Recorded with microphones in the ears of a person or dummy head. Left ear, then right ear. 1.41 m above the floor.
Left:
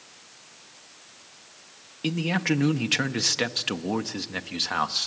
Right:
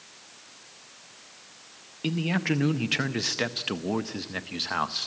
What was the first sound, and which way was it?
A man speaking, 5° left (ahead or behind).